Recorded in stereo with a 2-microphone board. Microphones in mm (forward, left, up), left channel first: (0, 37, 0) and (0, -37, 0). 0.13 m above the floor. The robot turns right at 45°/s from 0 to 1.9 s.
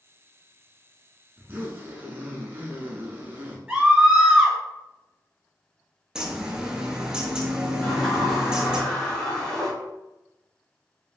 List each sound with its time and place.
1.4 s a zipper: 20° right (ahead or behind), 0.7 m; by 3.6 s 30° right (ahead or behind), 0.7 m
3.7 s a scream: 15° right (ahead or behind), 1.2 m
6.2 s a bird: 10° right (ahead or behind), 0.7 m
7.8 s a sliding door: 15° left (ahead or behind), 1.4 m